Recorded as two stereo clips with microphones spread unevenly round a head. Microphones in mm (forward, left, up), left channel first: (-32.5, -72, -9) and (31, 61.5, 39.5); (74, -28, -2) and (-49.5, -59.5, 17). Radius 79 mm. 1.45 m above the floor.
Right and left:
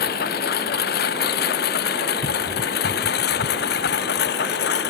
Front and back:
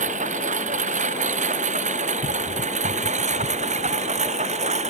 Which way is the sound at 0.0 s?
140° right.